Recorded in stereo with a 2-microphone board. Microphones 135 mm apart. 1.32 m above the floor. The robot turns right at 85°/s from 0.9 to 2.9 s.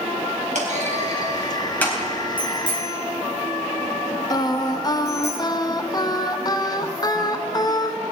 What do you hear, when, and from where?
0.6 s a clunk: 65° right (ahead or behind), 4 m; by 2.0 s 25° left (ahead or behind), 4 m
2.4 s a bicycle bell: 15° left (ahead or behind), 5 m; by 5.3 s 60° left (ahead or behind), 5 m
4.3 s singing: 30° left (ahead or behind), 0.7 m